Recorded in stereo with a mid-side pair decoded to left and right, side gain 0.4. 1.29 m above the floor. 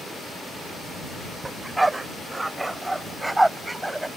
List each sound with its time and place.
1.4 s a dog barking: 20° right; by 4.1 s 10° right